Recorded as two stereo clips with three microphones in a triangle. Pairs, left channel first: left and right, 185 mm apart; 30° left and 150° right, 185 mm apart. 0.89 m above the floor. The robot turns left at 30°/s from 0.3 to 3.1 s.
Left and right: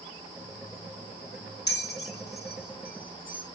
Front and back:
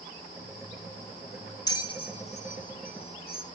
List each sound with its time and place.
1.7 s a bell: 95° left, 1.9 m; by 3.5 s 55° left, 1.9 m